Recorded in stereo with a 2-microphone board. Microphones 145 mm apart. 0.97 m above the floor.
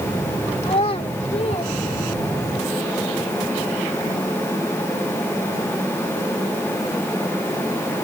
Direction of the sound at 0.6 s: 50° left (ahead or behind).